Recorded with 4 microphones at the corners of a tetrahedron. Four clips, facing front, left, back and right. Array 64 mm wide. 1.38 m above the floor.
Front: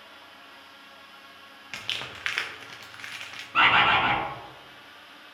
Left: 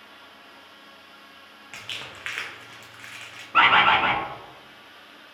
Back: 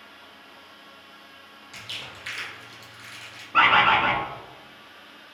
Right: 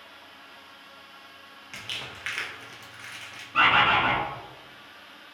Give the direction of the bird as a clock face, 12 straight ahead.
8 o'clock.